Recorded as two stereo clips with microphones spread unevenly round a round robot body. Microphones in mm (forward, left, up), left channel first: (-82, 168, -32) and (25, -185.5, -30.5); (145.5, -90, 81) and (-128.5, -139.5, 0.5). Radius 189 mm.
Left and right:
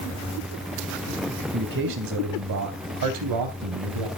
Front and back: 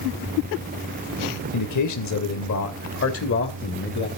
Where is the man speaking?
10° right, 3 m; by 4.1 s 45° right, 3.5 m.